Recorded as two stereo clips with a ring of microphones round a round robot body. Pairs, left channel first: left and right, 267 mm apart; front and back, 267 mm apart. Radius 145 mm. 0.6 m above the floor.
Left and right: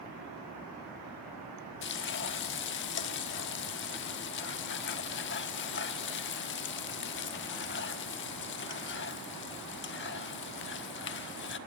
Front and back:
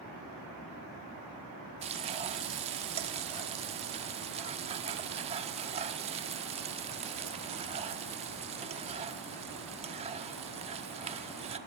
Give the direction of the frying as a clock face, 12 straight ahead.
8 o'clock.